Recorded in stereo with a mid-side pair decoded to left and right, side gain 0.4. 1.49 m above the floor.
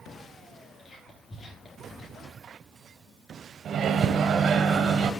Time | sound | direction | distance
0.8 | whispering | 55° left | 3 m
3.6 | a microwave | 65° right | 0.6 m